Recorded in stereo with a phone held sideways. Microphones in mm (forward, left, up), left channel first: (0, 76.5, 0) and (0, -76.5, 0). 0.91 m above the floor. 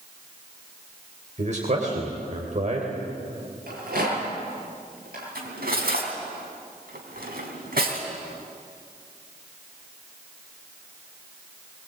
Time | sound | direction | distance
1.4 | a man speaking | 50° right (ahead or behind) | 3.5 m
3.7 | a rattle | 80° right | 7.5 m
5.3 | cutlery clinking | 80° right | 4 m